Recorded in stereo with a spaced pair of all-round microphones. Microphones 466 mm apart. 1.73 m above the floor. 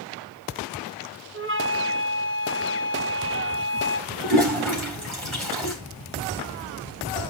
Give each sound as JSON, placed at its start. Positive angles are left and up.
{"t": 1.3, "sound": "a flute", "side_deg": -25, "distance_m": 1.5}
{"t": 4.2, "sound": "a toilet flushing", "side_deg": -75, "distance_m": 4.5}